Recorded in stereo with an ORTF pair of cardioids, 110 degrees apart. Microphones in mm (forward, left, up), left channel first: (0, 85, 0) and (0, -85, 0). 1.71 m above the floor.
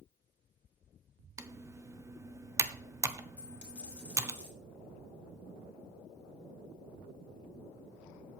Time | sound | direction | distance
1.4 | typing on a keyboard | 15° right | 0.9 m
3.4 | a dropped coin | 10° left | 4 m